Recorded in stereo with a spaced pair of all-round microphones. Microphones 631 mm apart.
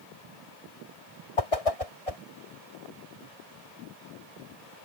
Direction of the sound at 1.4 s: 60° left (ahead or behind).